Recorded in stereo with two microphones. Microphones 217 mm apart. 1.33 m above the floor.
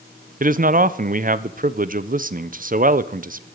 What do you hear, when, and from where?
0.4 s a man speaking: 40° right (ahead or behind), 0.6 m